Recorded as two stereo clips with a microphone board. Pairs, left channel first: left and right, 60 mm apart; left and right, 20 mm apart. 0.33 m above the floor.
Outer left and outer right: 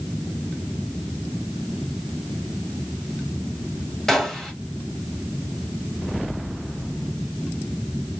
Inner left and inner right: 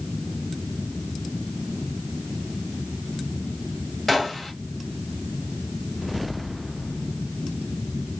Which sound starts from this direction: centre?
A gunshot, at 4.1 s.